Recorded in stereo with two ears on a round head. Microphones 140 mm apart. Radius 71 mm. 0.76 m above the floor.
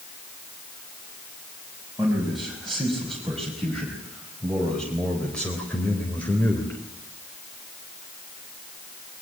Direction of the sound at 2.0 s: Centre (ahead or behind).